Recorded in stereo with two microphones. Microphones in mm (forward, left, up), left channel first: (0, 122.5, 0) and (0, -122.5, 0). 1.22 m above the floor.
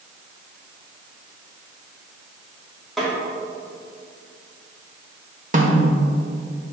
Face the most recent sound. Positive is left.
turn(degrees=-35)  # may be behind; listen again after turning